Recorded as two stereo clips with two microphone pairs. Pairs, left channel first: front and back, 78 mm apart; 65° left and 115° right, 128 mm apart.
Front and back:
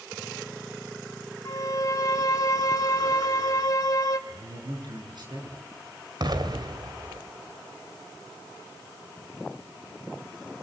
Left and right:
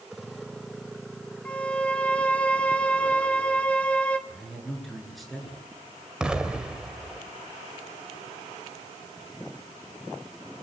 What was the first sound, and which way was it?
A violin, 15° right.